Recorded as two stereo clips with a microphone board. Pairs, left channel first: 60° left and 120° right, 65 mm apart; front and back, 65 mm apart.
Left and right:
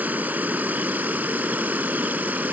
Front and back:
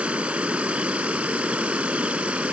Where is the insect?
135° right.